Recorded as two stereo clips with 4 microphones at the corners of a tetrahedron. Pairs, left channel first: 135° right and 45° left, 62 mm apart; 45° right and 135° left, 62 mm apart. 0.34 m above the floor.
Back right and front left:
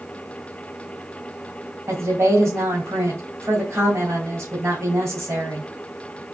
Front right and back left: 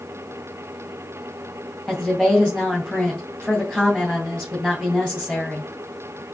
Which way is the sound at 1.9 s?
60° left.